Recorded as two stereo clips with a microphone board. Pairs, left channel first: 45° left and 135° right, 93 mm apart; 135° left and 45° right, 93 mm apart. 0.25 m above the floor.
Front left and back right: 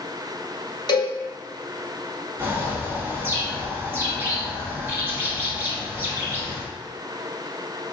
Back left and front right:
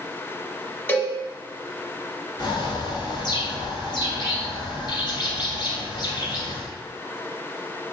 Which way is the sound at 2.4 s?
160° left.